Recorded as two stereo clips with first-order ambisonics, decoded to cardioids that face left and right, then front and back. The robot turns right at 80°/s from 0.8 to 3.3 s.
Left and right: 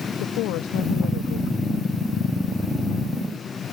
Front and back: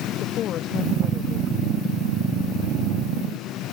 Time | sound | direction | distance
0.2 | a woman speaking | 55° left | ?